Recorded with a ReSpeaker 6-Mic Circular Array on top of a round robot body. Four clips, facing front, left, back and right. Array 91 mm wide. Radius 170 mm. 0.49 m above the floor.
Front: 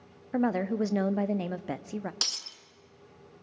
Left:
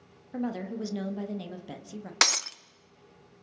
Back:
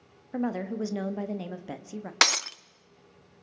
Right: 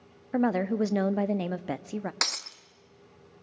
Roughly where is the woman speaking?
Right.